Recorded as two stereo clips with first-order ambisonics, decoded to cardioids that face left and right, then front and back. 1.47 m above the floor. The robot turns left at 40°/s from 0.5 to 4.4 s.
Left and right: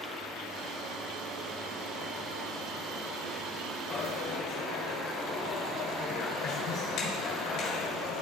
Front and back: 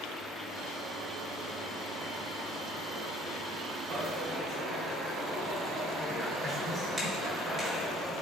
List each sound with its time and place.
3.9 s a dropped coin: 130° left, 1.8 m; by 8.2 s 110° left, 1.8 m